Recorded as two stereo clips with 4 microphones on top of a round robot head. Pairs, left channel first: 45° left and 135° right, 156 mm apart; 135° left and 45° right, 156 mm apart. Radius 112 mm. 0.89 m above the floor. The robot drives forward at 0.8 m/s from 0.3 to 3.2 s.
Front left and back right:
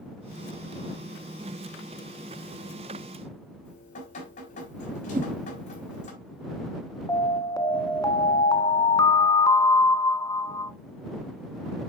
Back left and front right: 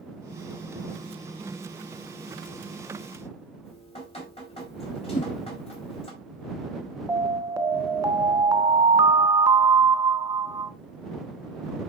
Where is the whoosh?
Straight behind, 0.7 m.